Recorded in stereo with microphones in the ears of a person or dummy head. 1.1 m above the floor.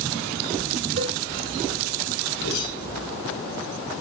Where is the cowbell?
65° right (ahead or behind), 3 m.